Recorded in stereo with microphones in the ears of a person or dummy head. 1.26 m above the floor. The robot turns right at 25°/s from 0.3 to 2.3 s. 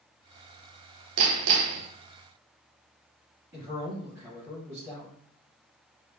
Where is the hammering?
75° right (ahead or behind), 0.5 m; by 1.9 s 85° right, 0.5 m.